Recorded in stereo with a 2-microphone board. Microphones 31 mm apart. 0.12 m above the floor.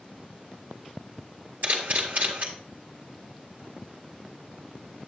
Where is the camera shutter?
55° right (ahead or behind), 1.9 m.